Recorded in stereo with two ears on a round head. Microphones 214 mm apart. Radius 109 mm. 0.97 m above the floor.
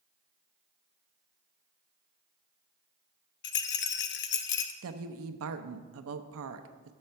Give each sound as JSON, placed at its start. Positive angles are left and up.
{"t": 3.4, "sound": "a rattle", "side_deg": 45, "distance_m": 0.5}
{"t": 4.8, "sound": "a woman speaking", "side_deg": -60, "distance_m": 0.6}